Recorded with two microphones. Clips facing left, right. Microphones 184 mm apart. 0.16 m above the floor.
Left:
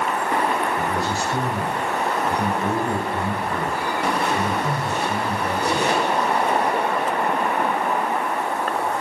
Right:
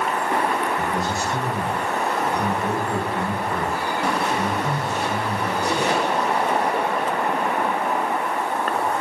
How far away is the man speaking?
About 5.5 m.